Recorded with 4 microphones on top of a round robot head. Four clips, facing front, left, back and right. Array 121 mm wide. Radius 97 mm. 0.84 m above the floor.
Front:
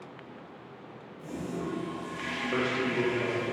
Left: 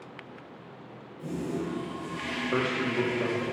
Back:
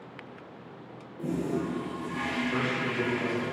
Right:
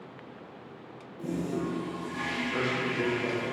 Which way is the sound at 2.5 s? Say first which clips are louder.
Left 4 dB, front 1 dB; 65° left.